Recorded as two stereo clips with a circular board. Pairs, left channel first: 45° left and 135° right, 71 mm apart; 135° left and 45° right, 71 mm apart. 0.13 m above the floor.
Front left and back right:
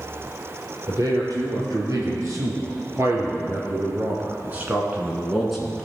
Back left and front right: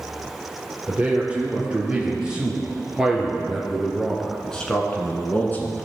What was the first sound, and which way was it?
A man speaking, 115° right.